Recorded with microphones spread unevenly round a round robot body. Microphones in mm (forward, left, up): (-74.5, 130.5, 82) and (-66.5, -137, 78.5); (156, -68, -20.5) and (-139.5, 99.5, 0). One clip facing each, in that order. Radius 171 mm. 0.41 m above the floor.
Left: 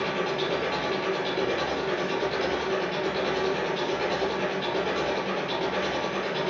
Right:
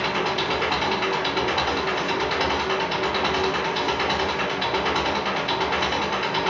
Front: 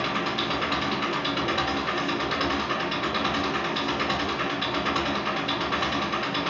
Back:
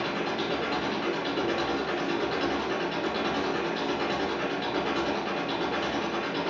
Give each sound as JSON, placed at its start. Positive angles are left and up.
{"t": 0.0, "sound": "an engine running", "azimuth_deg": -95, "distance_m": 2.0}